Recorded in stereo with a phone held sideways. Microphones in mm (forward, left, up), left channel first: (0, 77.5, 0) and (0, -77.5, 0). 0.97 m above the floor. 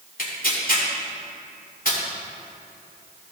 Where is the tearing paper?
65° left (ahead or behind), 2 m.